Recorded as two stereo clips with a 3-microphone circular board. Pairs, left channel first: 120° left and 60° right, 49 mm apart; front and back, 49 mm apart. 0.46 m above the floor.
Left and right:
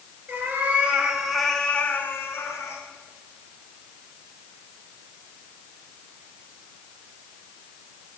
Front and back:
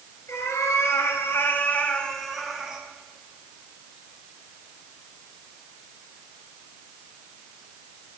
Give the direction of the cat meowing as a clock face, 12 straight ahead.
12 o'clock.